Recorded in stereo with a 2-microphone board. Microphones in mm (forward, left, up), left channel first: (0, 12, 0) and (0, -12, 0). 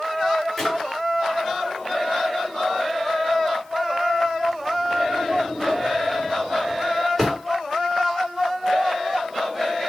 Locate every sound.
0.6 s a drawer: 5° left (ahead or behind), 2 m